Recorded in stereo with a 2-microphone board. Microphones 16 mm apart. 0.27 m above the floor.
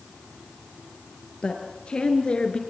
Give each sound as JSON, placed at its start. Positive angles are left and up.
{"t": 1.4, "sound": "a woman speaking", "side_deg": 60, "distance_m": 5.0}